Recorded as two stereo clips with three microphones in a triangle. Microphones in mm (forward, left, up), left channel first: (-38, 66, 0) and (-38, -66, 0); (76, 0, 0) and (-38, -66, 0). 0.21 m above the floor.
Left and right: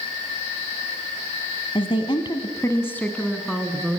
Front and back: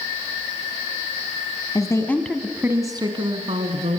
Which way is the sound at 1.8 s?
75° left.